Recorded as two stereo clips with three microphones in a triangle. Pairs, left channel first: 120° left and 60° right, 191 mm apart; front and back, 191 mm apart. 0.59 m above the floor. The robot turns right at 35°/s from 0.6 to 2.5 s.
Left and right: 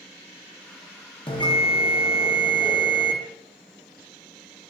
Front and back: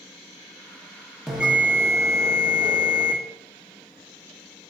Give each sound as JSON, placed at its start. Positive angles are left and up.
{"t": 1.3, "sound": "a bell", "azimuth_deg": 95, "distance_m": 0.7}